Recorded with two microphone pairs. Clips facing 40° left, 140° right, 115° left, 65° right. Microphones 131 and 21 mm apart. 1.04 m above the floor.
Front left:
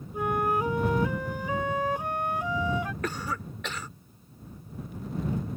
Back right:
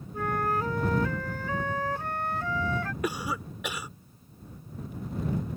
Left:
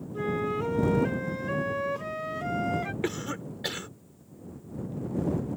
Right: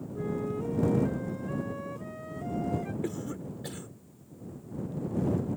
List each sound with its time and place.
0.1 s a flute: 115° left
3.0 s a cough: 145° left